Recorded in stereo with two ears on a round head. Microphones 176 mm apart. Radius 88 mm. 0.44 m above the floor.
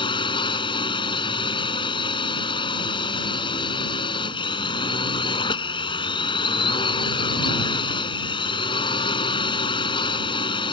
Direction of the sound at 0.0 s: 25° left (ahead or behind).